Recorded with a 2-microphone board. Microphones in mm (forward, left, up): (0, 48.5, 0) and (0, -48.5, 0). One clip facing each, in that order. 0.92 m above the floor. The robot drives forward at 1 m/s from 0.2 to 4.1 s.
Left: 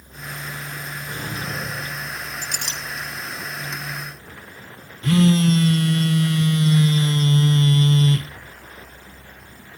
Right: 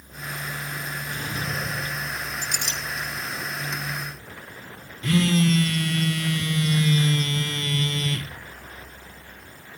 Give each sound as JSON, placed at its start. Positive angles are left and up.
{"t": 1.1, "sound": "a drawer", "side_deg": 40, "distance_m": 4.0}
{"t": 2.4, "sound": "a clink", "side_deg": 55, "distance_m": 7.5}
{"t": 5.0, "sound": "a phone buzzing", "side_deg": 30, "distance_m": 0.9}